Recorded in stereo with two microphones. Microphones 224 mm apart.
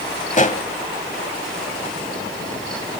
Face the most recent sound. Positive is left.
turn(degrees=35)  # may be behind; listen again after turning